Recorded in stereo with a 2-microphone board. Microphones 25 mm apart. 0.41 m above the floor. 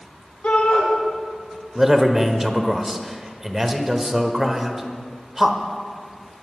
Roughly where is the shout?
Left.